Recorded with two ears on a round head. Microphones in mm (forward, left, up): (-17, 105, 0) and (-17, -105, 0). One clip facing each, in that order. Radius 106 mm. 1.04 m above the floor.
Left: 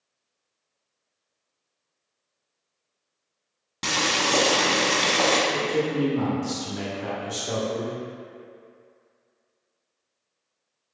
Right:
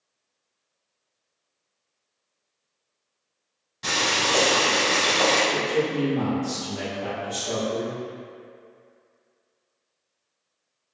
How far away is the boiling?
About 1.0 m.